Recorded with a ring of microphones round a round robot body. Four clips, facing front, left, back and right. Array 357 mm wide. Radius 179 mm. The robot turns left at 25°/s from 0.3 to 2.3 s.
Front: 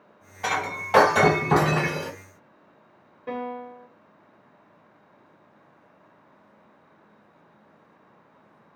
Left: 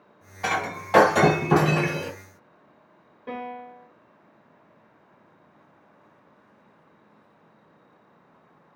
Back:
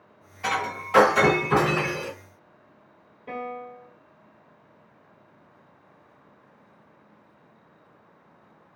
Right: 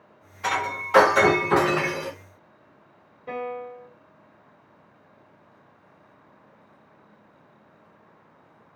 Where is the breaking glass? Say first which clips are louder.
Right 1 dB, even; 65° left, 1.6 m; by 2.1 s 20° left, 1.6 m.